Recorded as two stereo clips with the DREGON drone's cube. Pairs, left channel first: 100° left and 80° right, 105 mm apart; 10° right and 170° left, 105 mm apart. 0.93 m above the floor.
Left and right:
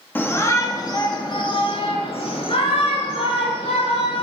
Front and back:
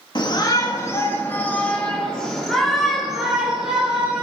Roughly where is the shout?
Ahead left.